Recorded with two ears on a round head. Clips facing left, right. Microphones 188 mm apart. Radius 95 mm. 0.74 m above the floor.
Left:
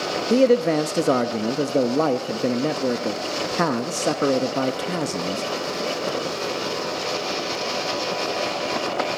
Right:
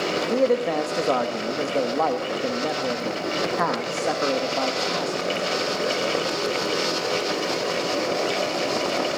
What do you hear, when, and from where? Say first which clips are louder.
0.3 s a man speaking: left 5 dB; 35° left (ahead or behind), 0.6 m